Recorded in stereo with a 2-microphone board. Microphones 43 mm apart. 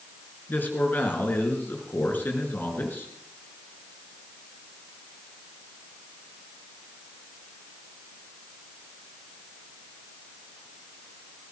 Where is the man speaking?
50° left (ahead or behind), 4 m.